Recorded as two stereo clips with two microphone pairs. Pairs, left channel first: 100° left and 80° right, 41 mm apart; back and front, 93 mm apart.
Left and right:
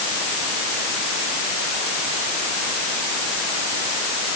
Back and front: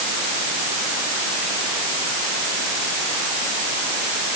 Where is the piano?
No piano in this recording.